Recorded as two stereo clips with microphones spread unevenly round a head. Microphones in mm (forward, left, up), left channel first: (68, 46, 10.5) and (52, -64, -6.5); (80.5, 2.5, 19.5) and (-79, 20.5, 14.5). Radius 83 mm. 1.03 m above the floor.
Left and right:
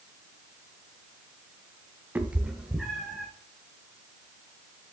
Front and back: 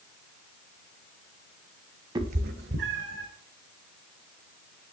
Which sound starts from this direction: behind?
A cat meowing, at 2.1 s.